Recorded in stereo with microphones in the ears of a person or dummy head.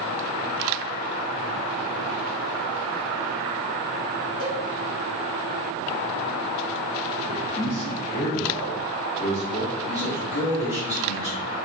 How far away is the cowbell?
About 3.5 m.